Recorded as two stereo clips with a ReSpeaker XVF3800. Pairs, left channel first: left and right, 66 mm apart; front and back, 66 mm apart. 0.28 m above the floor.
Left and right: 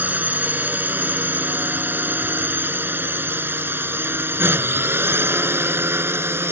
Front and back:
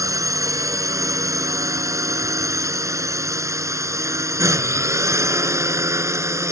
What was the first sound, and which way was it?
A drone, 155° right.